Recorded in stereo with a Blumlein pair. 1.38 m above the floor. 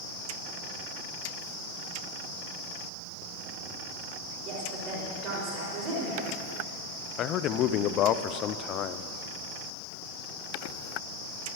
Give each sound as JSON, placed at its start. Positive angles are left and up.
{"t": 4.5, "sound": "a woman speaking", "azimuth_deg": -35, "distance_m": 5.0}
{"t": 7.2, "sound": "a man speaking", "azimuth_deg": 35, "distance_m": 0.6}